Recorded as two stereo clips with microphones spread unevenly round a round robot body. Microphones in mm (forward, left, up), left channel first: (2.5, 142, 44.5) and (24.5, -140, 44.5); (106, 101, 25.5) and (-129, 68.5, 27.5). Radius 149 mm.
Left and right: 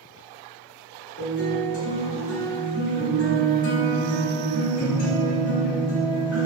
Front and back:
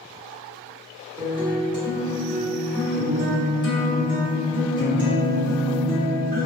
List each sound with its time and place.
1.2 s a guitar: 75° left, 1.1 m